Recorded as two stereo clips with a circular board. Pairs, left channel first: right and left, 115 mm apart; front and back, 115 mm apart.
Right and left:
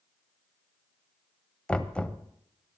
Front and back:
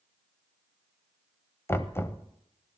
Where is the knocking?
25° right, 0.6 m.